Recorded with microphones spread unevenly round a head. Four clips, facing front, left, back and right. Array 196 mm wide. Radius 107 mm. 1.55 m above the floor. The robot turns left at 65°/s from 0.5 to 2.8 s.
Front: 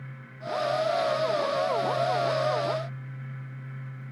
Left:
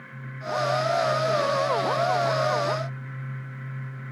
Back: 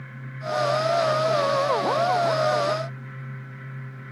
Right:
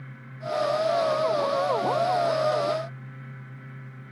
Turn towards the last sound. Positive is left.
No sound to turn to.